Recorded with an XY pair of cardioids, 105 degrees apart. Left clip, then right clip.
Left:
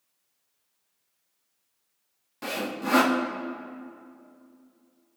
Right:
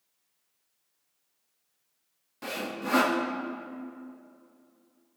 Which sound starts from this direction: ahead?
Sawing, at 2.4 s.